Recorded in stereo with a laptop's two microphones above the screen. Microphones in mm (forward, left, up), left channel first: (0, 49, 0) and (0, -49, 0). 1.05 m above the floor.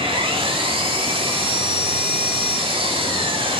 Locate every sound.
0.0 s an engine running: 75° right (ahead or behind), 5 m